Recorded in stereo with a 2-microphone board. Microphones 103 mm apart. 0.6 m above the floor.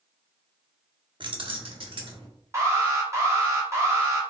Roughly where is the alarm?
Right.